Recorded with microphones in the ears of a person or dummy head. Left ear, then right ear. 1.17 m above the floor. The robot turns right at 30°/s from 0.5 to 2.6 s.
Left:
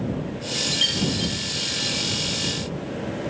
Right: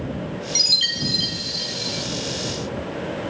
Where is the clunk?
I don't hear a clunk.